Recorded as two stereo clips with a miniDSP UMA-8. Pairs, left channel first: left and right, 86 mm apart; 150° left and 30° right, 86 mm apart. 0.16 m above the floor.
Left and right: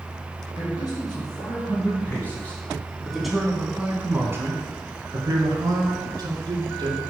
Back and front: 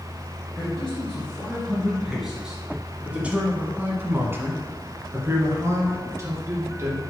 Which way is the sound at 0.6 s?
75° left.